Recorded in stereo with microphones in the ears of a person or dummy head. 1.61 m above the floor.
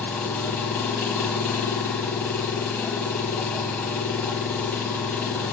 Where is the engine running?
Centre (ahead or behind), 0.7 m.